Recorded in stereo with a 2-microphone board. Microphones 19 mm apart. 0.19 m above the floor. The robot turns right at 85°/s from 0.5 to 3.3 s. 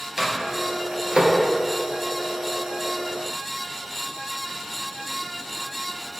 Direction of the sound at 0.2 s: 30° right (ahead or behind).